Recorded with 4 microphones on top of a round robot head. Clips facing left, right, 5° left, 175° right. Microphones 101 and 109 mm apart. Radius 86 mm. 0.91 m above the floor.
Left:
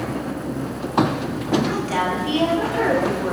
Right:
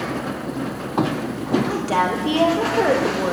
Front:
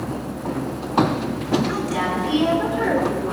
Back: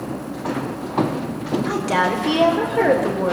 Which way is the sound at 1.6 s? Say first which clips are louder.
Right 2 dB, back 3 dB; 145° right.